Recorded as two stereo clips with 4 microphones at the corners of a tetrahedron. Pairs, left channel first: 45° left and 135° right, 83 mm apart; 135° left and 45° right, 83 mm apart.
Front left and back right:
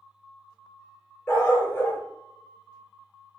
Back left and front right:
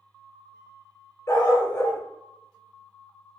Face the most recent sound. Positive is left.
turn(degrees=95)